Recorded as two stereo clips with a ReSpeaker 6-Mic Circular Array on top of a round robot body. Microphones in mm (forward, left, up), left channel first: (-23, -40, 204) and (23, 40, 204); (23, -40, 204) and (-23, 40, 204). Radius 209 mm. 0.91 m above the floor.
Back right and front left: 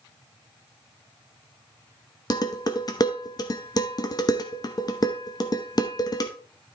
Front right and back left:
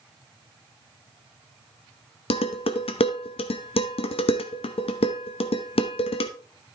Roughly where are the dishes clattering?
Right.